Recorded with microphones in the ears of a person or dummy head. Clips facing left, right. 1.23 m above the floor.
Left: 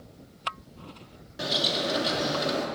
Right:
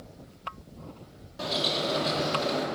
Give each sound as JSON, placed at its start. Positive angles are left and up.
{"t": 1.4, "sound": "a bird", "side_deg": 20, "distance_m": 3.0}